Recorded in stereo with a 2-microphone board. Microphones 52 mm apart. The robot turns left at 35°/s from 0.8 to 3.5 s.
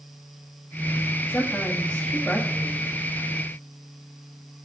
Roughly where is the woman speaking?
Ahead left.